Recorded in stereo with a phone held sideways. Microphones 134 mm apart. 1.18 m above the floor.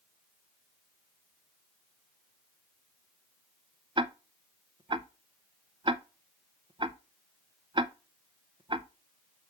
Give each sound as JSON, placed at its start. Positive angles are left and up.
{"t": 4.0, "sound": "ticking", "side_deg": -40, "distance_m": 0.6}